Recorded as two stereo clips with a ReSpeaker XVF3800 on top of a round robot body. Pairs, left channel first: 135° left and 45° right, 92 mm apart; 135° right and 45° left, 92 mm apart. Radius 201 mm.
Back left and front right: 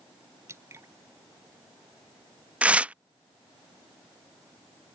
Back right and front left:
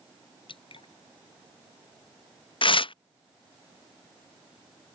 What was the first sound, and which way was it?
Dripping, 105° right.